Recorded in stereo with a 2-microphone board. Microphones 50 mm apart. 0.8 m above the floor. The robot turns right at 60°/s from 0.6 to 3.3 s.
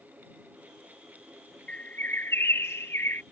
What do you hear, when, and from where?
1.7 s a bird: 30° left; by 3.2 s 120° left